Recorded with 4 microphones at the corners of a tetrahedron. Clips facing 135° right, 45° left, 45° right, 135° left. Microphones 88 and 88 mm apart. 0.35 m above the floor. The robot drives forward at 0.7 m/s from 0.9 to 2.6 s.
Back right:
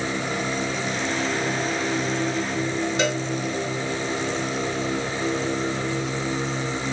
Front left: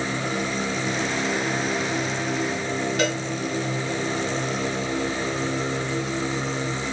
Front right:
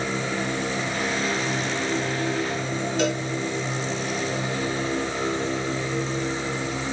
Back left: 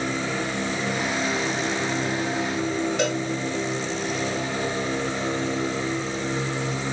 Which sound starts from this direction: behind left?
A cowbell, at 3.0 s.